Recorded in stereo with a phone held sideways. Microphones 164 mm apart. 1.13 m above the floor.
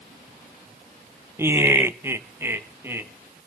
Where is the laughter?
15° right (ahead or behind), 0.5 m.